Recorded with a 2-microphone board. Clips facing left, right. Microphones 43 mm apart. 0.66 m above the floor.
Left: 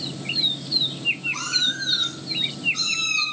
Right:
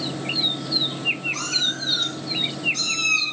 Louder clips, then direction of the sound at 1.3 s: Even; 5° left (ahead or behind).